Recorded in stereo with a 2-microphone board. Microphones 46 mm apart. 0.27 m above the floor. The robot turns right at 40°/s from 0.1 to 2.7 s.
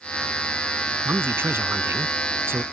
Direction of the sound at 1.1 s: 130° right.